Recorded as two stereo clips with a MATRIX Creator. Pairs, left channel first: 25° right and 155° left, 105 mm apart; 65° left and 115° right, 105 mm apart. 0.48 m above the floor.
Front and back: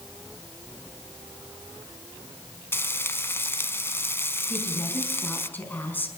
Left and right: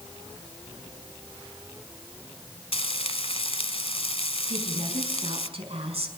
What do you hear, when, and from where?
2.7 s frying: 45° left, 1.1 m
4.5 s a woman speaking: 95° right, 4.5 m